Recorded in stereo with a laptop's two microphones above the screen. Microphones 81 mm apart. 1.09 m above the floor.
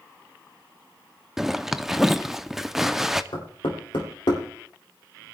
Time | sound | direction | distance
1.4 | a zipper | 5° right (ahead or behind) | 0.6 m
3.3 | knocking | 90° left | 3 m